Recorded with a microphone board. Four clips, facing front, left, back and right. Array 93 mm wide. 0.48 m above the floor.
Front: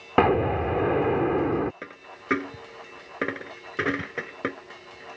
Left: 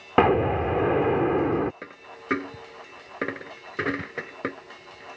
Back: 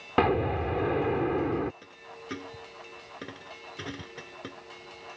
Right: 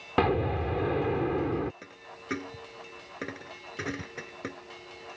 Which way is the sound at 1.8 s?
35° left.